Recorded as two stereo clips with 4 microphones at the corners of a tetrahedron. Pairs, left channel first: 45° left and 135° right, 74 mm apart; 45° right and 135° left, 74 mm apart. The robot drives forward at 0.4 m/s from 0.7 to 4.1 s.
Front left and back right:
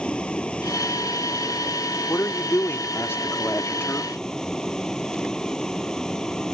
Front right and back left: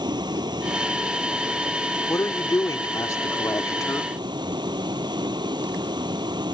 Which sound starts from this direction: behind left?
A vehicle, at 0.0 s.